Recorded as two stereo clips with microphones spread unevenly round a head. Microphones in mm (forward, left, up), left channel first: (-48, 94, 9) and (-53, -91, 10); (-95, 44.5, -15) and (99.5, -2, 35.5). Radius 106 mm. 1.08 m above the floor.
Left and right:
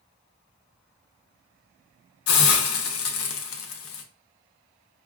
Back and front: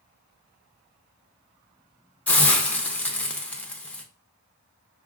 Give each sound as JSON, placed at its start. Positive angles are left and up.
{"t": 2.3, "sound": "a hiss", "azimuth_deg": 80, "distance_m": 0.7}